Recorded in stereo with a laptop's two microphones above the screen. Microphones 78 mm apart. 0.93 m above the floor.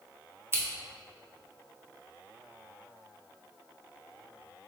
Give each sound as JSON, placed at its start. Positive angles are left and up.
{"t": 0.5, "sound": "scissors", "side_deg": -30, "distance_m": 0.5}